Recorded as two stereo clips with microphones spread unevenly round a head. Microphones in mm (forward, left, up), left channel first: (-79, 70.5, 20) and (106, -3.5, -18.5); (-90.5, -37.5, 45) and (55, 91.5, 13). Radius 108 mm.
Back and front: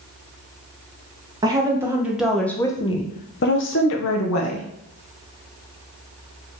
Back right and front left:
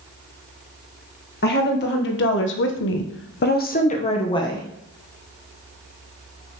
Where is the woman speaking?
90° right, 1.4 m; by 4.7 s 145° left, 1.1 m.